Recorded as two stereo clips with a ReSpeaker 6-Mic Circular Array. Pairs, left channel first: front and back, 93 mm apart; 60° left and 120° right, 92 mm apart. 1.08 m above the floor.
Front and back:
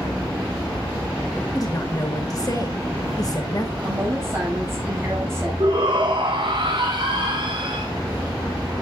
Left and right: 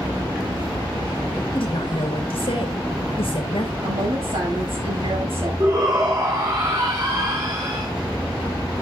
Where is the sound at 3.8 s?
120° right, 7.5 m.